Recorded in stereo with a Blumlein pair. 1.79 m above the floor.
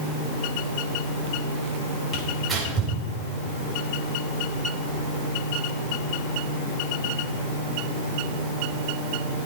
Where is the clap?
No clap in this recording.